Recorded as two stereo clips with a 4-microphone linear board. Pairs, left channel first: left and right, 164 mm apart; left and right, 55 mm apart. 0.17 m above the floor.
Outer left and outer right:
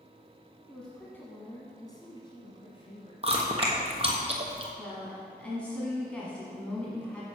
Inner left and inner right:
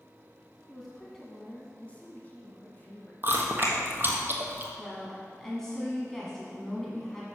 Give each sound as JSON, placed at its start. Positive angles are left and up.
{"t": 0.7, "sound": "a woman speaking", "side_deg": 5, "distance_m": 1.2}
{"t": 3.2, "sound": "chewing", "side_deg": -40, "distance_m": 1.1}
{"t": 4.8, "sound": "a woman speaking", "side_deg": 10, "distance_m": 1.4}